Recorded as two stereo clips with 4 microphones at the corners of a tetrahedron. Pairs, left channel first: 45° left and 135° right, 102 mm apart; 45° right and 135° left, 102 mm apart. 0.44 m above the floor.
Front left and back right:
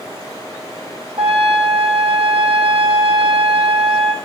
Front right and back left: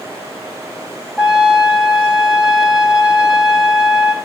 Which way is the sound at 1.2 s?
145° right.